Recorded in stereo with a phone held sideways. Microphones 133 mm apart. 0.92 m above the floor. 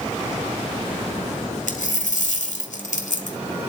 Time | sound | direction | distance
1.7 | a dropped coin | 70° left (ahead or behind) | 1.5 m